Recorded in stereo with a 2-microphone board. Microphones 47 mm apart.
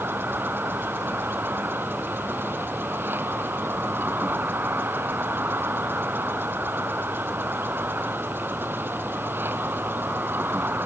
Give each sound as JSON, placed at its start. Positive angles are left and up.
{"t": 0.0, "sound": "an insect", "side_deg": -45}